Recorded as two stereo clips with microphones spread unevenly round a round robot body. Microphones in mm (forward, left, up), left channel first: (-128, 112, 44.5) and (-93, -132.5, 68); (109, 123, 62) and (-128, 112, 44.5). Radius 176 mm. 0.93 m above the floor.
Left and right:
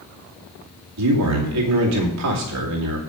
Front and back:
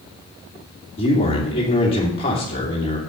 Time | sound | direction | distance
1.0 | a man speaking | 70° right | 2.5 m